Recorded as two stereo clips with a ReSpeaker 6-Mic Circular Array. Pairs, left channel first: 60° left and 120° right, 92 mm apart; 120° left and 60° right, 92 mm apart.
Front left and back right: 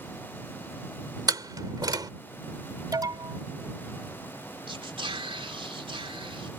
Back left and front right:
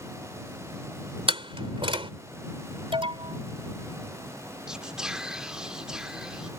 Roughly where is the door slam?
Right.